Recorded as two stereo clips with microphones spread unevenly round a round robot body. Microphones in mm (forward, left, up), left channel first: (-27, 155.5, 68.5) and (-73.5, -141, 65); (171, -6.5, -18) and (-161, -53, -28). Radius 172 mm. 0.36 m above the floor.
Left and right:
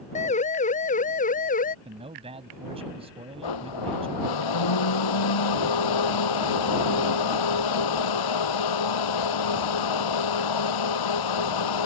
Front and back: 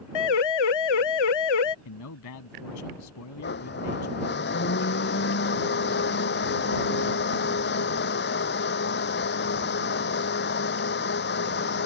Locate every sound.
0.1 s a siren: 10° left; by 1.8 s 15° left
1.9 s a man speaking: 25° right
3.4 s a blender: 70° left